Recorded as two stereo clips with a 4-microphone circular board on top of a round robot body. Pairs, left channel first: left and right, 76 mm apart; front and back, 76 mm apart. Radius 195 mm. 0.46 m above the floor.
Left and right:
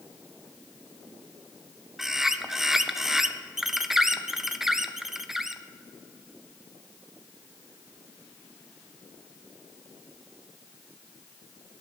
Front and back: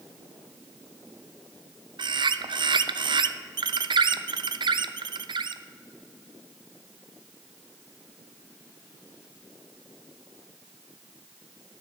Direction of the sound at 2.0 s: 175° right.